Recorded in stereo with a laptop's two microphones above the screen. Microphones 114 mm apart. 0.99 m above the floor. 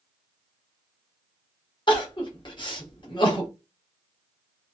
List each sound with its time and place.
1.9 s crying: 45° left (ahead or behind), 0.8 m